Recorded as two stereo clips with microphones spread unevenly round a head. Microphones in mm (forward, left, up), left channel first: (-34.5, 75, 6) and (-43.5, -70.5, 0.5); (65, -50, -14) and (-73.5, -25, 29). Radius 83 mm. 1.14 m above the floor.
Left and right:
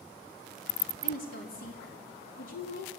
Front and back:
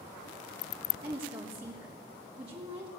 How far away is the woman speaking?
About 3 m.